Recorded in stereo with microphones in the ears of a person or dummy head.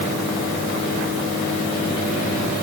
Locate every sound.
Only background noise.